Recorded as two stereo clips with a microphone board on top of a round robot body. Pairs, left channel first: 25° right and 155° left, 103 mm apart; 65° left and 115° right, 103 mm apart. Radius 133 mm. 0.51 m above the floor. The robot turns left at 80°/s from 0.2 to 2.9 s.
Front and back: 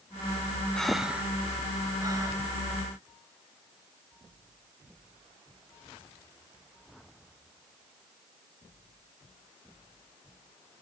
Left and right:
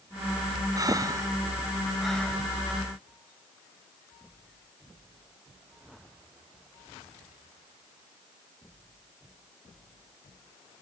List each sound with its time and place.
0.8 s breathing: 100° right, 1.1 m; by 2.3 s 130° left, 1.1 m